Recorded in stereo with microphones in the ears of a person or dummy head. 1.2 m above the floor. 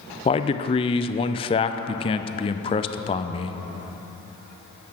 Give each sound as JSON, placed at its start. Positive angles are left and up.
{"t": 0.2, "sound": "a man speaking", "side_deg": 20, "distance_m": 0.5}